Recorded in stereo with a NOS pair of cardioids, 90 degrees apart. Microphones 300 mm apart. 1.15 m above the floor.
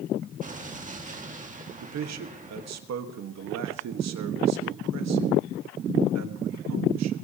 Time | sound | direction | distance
0.4 | an explosion | 25° right | 2 m
1.8 | a man speaking | 60° right | 1.6 m